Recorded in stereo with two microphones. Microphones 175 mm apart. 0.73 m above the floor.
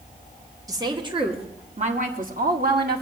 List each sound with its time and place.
0.7 s a woman speaking: 20° right (ahead or behind), 2 m; by 3.0 s 65° right (ahead or behind), 2 m